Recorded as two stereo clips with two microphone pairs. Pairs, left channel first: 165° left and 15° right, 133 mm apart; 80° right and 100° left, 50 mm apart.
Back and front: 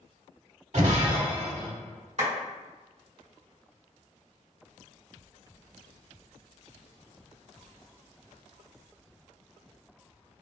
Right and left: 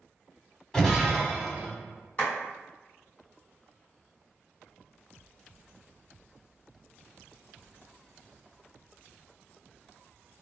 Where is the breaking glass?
Straight ahead, 0.8 m.